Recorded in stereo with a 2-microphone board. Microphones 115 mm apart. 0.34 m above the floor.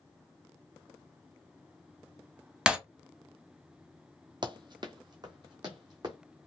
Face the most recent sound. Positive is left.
turn(degrees=-40)  # may be behind; listen again after turning